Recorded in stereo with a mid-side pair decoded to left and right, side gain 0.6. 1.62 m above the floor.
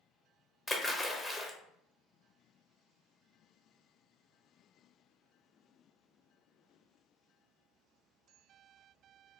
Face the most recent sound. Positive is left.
turn(degrees=15)